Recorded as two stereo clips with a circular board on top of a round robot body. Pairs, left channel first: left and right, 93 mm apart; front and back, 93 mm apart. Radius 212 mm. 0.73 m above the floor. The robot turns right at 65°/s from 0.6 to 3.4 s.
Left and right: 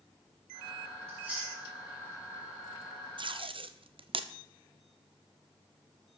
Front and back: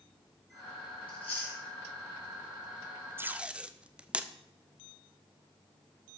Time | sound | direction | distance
1.1 | chewing | 30° right | 7 m
3.2 | tape being pulled | 115° right | 0.9 m